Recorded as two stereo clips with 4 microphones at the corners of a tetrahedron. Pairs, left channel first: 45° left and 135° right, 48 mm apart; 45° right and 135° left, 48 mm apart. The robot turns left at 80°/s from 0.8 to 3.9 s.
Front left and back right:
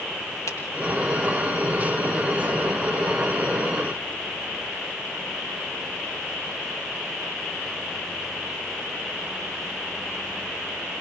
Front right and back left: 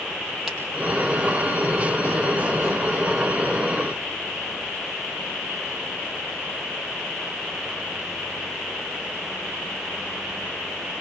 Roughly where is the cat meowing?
No cat meowing in this recording.